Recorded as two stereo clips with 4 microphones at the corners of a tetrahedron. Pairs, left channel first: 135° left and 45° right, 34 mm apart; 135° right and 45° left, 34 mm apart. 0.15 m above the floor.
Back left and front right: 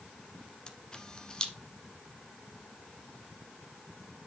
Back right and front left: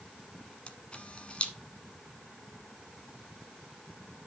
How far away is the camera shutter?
About 1.1 m.